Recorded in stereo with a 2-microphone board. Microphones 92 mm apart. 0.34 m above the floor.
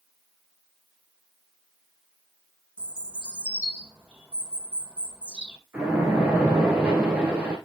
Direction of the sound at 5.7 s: 15° right (ahead or behind).